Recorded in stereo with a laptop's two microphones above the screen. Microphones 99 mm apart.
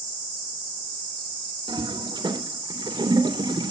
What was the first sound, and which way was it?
A toilet flushing, 55° right (ahead or behind).